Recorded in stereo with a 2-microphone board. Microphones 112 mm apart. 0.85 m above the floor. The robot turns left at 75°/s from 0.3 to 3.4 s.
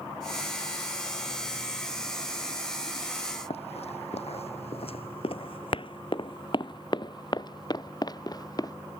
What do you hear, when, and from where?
3.5 s running footsteps: 65° left (ahead or behind); by 8.7 s 35° left (ahead or behind)